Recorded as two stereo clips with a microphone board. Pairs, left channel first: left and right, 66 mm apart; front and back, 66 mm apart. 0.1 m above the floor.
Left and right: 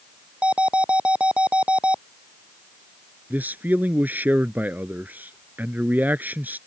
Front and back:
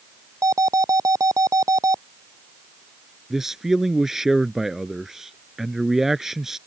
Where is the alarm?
160° right.